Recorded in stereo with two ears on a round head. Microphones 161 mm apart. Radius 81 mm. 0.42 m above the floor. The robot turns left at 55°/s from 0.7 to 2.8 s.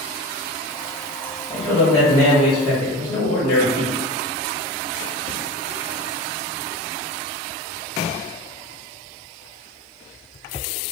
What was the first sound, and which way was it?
A man speaking, 155° right.